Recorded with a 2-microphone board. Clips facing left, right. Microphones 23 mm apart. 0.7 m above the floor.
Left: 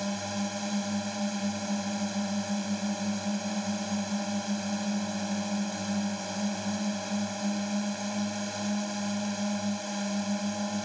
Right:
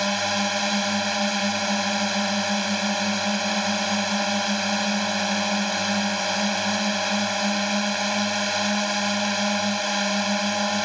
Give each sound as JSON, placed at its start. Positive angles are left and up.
{"t": 0.0, "sound": "a drone", "side_deg": -65}